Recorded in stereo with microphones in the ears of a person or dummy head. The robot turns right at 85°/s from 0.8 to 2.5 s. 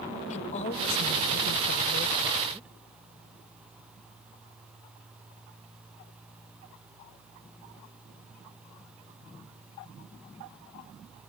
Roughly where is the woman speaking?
Ahead left.